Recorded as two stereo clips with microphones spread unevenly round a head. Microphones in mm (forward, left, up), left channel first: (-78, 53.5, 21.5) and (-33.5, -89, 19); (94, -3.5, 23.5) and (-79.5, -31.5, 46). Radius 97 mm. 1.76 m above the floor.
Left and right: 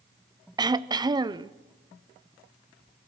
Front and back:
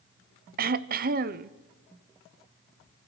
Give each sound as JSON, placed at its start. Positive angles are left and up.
{"t": 0.6, "sound": "throat clearing", "azimuth_deg": -135, "distance_m": 0.8}